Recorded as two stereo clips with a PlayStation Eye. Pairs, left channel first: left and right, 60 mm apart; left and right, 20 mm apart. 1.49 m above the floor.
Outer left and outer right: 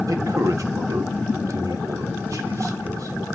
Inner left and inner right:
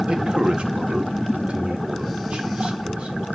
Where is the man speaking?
75° right (ahead or behind), 1.5 m; by 3.2 s 80° right, 3 m.